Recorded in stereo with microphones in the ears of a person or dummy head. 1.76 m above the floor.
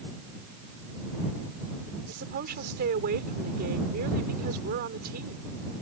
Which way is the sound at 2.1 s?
50° right (ahead or behind).